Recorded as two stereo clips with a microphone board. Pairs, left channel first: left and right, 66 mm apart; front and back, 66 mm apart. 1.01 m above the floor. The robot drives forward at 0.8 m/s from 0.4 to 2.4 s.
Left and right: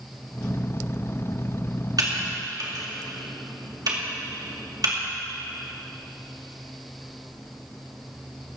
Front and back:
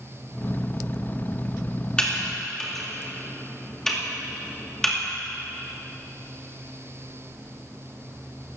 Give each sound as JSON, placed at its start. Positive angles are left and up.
{"t": 2.0, "sound": "typing on a keyboard", "azimuth_deg": -75, "distance_m": 2.5}